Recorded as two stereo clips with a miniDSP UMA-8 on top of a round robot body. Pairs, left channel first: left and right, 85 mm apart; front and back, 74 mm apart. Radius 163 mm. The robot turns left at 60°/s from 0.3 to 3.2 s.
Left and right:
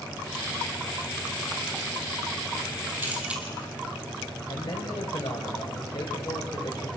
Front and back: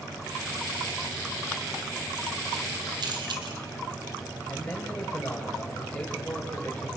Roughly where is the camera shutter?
Behind right.